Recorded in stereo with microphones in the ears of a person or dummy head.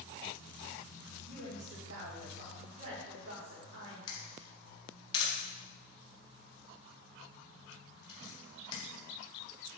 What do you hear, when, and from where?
1.2 s a woman speaking: 80° right, 3.5 m
4.1 s a camera shutter: 30° left (ahead or behind), 2.0 m